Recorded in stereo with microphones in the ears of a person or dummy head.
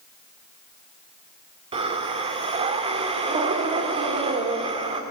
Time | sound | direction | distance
1.7 | breathing | 30° right (ahead or behind) | 1.7 m